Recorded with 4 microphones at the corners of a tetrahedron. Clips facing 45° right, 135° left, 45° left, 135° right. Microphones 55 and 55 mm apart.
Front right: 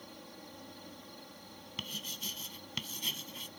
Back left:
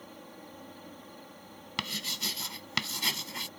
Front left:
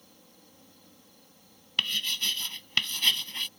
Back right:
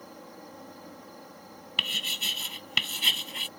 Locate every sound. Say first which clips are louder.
0.0 s an insect: back left 3 dB, back right 13 dB; 150° right
1.8 s writing: back left 7 dB, even; 140° left